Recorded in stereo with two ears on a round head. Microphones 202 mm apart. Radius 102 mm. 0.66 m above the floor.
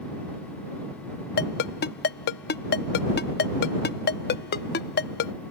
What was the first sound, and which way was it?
A ringtone, 45° left (ahead or behind).